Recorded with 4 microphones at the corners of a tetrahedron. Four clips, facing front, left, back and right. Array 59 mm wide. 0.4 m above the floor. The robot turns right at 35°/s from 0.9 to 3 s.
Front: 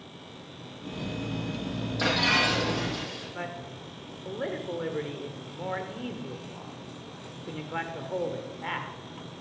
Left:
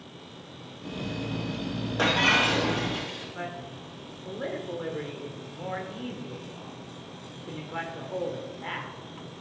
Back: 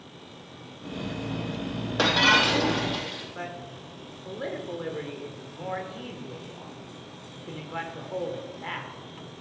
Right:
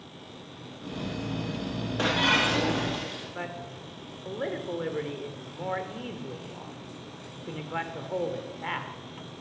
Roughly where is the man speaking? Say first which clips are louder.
Even, even; ahead right.